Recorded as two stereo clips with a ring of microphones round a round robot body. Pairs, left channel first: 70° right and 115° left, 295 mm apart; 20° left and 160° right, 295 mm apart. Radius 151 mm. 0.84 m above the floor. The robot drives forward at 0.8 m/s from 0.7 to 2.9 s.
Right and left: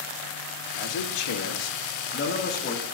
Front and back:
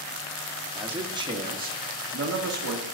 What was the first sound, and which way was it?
A man speaking, 70° right.